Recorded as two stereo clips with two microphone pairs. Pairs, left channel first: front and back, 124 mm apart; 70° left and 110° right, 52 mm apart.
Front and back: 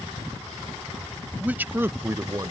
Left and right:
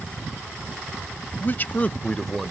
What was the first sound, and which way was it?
A man speaking, 105° left.